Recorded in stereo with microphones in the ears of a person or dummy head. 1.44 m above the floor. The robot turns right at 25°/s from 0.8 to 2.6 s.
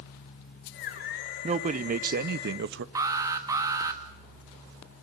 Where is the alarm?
25° right (ahead or behind), 1.3 m.